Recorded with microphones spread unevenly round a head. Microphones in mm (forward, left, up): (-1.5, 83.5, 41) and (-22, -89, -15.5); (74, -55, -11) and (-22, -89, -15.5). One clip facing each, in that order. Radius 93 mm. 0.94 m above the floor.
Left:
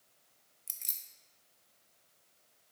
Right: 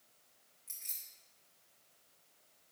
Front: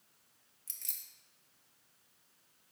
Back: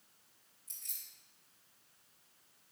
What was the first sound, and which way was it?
Keys jangling, 35° left.